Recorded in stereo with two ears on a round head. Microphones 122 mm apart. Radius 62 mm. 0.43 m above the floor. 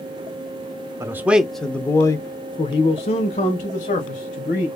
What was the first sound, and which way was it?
A man speaking, 20° right (ahead or behind).